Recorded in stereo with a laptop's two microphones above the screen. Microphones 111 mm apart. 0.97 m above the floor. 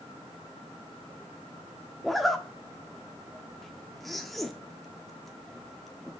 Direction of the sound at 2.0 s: Centre (ahead or behind).